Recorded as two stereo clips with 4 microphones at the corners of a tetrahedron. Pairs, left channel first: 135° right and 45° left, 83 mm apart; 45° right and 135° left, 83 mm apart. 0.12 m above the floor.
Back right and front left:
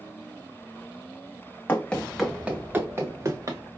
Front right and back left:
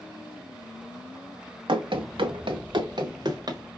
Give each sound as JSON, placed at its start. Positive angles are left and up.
{"t": 1.7, "sound": "running footsteps", "azimuth_deg": 155, "distance_m": 0.6}